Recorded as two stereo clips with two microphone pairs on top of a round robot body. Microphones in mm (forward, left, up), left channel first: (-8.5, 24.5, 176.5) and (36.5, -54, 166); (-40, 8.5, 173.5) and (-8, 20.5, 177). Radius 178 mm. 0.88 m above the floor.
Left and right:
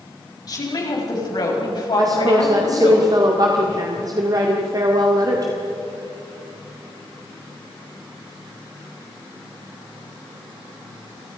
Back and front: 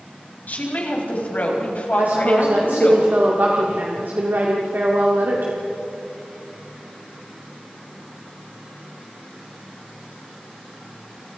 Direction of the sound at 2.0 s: 15° right.